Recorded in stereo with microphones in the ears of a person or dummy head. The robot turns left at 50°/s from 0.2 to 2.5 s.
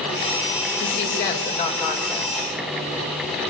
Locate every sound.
0.8 s a woman speaking: 75° left, 5.5 m; by 2.5 s 5° right, 5.5 m